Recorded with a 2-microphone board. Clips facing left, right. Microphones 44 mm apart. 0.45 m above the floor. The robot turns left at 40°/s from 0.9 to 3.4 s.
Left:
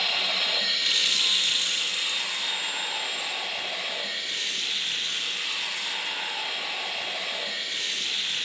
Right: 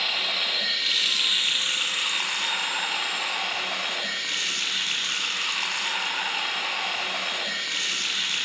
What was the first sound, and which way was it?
Running water, 5° right.